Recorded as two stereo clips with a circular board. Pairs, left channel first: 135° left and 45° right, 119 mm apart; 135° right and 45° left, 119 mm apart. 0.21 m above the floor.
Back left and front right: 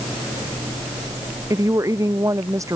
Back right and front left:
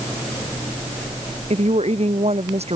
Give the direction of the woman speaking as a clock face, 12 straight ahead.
11 o'clock.